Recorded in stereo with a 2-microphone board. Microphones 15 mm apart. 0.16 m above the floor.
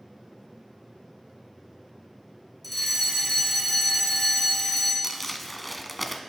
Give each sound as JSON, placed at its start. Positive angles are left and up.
{"t": 2.6, "sound": "a fire alarm", "side_deg": 0, "distance_m": 3.0}
{"t": 5.0, "sound": "crumpling", "side_deg": 10, "distance_m": 0.6}